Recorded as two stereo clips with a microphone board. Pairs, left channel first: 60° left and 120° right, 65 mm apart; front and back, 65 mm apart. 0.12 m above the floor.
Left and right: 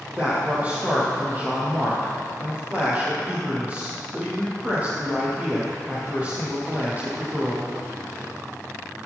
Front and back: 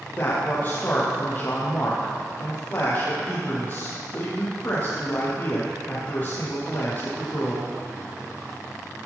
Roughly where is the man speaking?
Ahead right.